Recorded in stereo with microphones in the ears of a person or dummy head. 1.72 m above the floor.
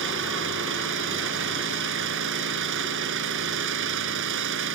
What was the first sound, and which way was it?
An engine running, 70° right (ahead or behind).